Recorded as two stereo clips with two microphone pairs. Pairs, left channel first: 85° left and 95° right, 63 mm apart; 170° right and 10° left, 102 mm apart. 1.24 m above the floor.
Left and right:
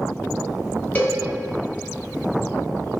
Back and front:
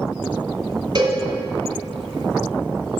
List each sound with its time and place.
0.9 s a cowbell: 30° left, 1.4 m